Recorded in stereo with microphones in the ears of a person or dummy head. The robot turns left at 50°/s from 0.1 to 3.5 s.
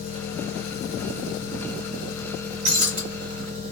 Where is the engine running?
130° left, 1.3 m; by 3.7 s 40° right, 1.3 m.